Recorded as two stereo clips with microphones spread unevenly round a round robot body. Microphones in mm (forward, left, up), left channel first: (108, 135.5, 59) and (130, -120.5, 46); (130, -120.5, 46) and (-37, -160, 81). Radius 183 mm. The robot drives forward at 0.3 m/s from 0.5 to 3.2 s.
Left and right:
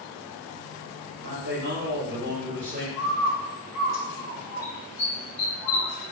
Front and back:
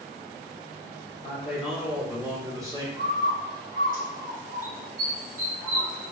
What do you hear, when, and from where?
1.2 s a man speaking: 55° right, 1.1 m; by 2.9 s 95° right, 1.0 m
3.0 s a bird: 155° right, 1.7 m